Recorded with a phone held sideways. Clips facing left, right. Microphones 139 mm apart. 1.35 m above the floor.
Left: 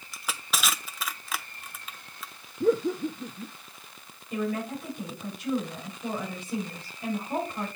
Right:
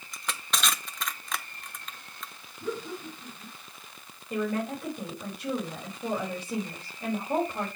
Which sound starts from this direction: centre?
Crushing, at 0.1 s.